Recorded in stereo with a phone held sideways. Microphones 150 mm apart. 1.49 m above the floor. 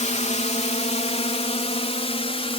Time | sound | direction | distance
0.0 | a drone | 50° left (ahead or behind) | ?